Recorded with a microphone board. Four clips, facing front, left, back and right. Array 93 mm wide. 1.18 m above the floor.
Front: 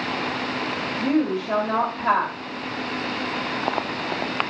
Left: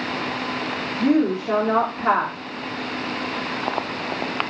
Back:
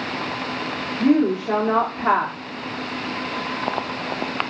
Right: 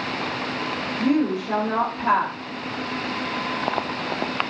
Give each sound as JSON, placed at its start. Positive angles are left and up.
{"t": 1.0, "sound": "a woman speaking", "azimuth_deg": 145, "distance_m": 3.5}